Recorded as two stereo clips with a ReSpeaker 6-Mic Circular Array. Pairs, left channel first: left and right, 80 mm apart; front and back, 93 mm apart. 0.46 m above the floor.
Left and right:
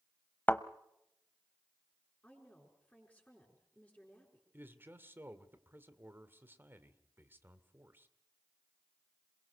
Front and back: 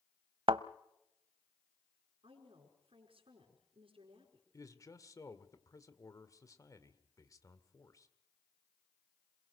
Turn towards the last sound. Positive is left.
turn(degrees=-35)